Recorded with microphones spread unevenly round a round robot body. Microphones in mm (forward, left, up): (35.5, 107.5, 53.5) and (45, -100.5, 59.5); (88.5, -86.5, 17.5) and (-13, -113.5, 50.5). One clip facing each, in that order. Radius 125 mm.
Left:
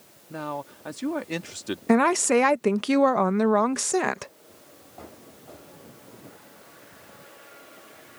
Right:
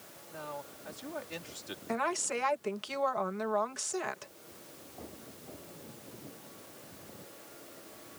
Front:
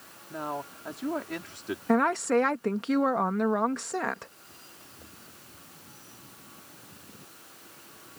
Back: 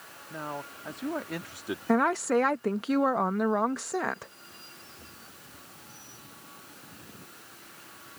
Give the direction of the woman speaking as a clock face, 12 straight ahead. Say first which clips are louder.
Left 15 dB, front 1 dB; 9 o'clock.